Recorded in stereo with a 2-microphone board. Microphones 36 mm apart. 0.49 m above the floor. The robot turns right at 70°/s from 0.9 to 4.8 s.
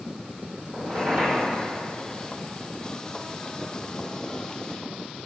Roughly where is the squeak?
Right.